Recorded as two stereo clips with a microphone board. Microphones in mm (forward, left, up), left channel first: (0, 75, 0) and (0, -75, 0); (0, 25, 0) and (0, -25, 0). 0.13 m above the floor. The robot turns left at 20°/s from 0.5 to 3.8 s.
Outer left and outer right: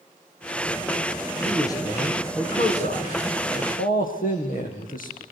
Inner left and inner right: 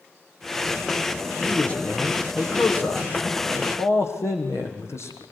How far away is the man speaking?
About 5.5 m.